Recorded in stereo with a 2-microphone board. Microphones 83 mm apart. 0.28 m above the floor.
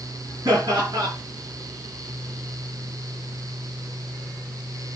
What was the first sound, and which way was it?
Laughter, 40° right (ahead or behind).